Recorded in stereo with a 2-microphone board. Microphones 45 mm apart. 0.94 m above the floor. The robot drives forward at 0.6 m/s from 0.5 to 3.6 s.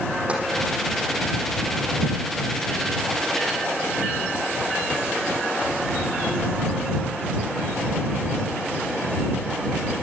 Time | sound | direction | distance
0.3 | tapping | 25° right (ahead or behind) | 7.5 m